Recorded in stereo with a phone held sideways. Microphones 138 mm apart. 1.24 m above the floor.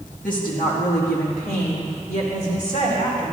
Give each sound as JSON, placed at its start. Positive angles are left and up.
{"t": 0.2, "sound": "a woman speaking", "side_deg": 70, "distance_m": 2.0}